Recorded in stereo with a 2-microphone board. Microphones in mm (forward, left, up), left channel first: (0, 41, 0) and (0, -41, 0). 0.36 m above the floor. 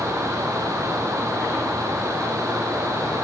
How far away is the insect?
About 5 m.